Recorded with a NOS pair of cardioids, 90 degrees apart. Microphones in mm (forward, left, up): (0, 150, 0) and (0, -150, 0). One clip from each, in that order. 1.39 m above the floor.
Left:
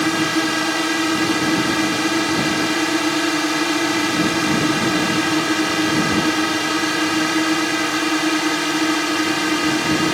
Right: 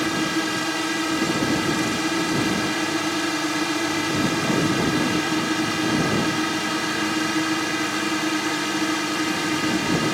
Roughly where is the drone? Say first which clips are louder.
Left 5 dB; ahead left.